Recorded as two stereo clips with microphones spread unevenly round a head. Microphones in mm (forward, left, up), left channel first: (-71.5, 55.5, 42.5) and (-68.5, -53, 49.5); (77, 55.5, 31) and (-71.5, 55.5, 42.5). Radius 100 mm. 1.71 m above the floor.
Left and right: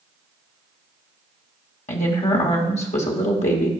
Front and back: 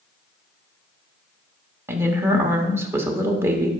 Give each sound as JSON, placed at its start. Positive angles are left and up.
{"t": 1.9, "sound": "a woman speaking", "azimuth_deg": 105, "distance_m": 1.2}